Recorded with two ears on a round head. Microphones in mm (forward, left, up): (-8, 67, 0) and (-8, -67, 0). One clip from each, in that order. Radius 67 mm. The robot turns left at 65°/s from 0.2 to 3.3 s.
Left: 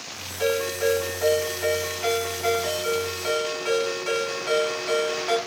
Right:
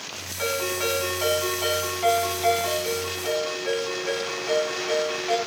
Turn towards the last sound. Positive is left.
turn(degrees=100)